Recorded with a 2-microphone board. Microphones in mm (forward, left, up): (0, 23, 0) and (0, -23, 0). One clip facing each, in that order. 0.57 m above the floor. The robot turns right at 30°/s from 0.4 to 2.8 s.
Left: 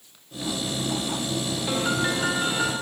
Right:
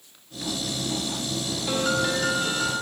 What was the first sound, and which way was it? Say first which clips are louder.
A piano: right 1 dB; 15° left.